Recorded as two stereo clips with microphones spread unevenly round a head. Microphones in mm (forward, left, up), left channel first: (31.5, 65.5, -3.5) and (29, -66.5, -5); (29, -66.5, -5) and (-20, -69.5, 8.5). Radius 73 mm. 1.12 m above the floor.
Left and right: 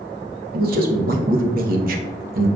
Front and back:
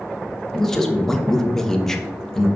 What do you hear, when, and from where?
0.5 s a man speaking: 75° right, 0.8 m